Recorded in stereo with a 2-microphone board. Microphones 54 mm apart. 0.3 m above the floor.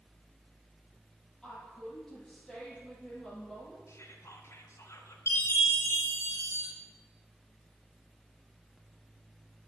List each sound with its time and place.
1.4 s a woman speaking: 10° left (ahead or behind), 8.5 m
3.9 s whispering: 60° left (ahead or behind), 3 m
5.3 s a chime: 55° left (ahead or behind), 6 m